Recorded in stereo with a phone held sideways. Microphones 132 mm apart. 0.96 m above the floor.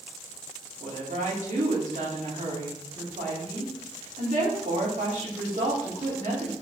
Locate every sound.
0.8 s a woman speaking: 70° right (ahead or behind), 3 m